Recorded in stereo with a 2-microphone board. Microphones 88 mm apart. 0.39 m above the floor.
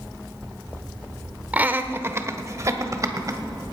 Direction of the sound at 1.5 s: 15° right (ahead or behind).